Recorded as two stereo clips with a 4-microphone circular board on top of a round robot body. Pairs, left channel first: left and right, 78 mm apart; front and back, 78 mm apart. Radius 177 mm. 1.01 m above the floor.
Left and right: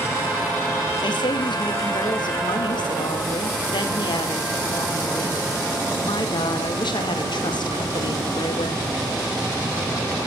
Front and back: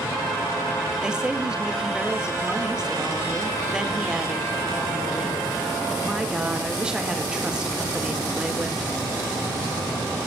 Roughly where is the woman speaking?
Left.